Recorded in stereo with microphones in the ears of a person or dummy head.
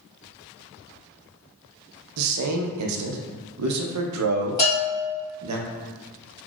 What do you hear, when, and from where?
2.2 s a man speaking: 85° right, 0.7 m
4.6 s a bell: 15° left (ahead or behind), 1.0 m